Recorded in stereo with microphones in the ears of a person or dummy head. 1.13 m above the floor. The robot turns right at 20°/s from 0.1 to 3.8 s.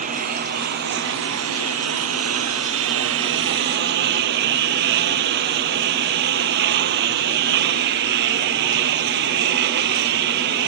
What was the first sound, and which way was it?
A lawn mower, 135° right.